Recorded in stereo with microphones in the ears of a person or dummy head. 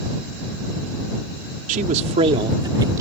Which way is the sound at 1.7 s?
50° right (ahead or behind).